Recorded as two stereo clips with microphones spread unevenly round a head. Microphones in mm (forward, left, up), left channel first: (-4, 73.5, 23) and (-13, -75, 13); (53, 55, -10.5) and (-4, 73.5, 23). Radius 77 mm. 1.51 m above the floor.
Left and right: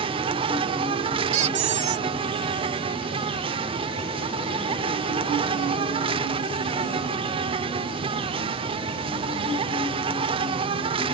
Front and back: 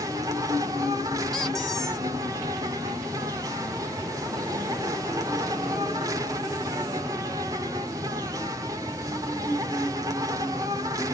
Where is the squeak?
130° right.